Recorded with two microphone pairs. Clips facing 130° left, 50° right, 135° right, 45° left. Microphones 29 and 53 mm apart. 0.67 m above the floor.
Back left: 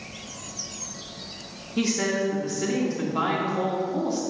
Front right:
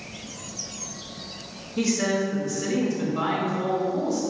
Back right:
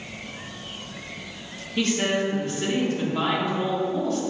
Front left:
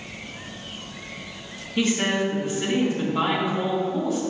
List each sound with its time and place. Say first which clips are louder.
1.8 s a woman speaking: front right 1 dB, front left 1 dB; 125° left, 1.6 m